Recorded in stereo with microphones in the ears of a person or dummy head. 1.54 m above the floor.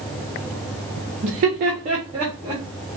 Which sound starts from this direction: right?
Laughter, at 1.2 s.